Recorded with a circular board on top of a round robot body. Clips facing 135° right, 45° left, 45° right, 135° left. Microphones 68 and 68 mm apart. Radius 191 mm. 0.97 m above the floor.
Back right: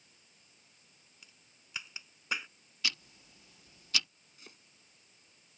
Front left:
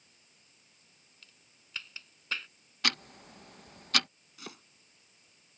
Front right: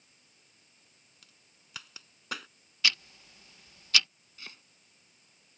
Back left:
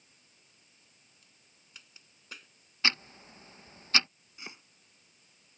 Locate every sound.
1.2 s a crack: 55° right
2.8 s ticking: 75° left
4.4 s chopping: 65° left